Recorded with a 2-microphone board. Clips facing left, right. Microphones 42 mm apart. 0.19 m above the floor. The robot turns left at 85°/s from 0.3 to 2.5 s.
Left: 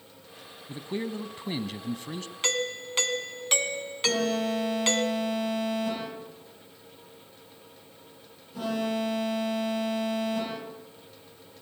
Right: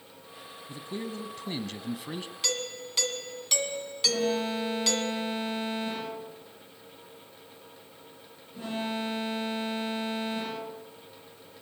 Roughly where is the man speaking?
Left.